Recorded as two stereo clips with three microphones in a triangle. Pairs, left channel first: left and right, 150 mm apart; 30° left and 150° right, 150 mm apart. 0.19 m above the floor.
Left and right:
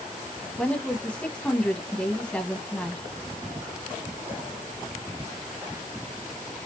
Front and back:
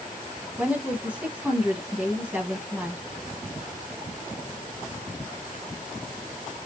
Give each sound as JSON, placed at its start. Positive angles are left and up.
{"t": 0.6, "sound": "a woman speaking", "azimuth_deg": 150, "distance_m": 1.1}